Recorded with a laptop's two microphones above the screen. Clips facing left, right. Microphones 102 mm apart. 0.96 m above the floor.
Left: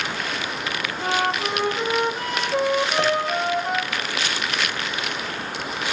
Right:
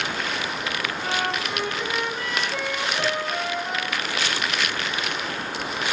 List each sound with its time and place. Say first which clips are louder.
1.0 s a flute: left 6 dB; 40° left (ahead or behind), 0.8 m
3.0 s a piano: left 5 dB; 55° left (ahead or behind), 1.2 m